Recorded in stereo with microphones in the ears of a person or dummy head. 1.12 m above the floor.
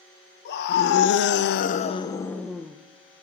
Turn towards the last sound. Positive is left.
turn(degrees=-10)  # may be behind; listen again after turning